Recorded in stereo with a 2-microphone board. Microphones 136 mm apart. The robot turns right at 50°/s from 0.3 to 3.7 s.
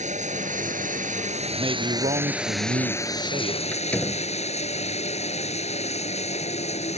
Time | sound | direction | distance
0.0 | running water | 115° right | ?
1.5 | a man speaking | 150° right | ?
3.7 | a door slam | 10° left (ahead or behind) | ?